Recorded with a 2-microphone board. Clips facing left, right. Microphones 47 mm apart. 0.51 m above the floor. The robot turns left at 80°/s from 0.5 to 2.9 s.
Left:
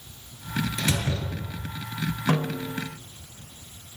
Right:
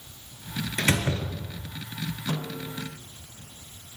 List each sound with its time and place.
0.8 s a door slam: 130° right, 5 m; by 1.7 s 155° left, 5 m
2.3 s a snare drum: 70° left, 2.5 m; by 2.9 s 20° left, 2.5 m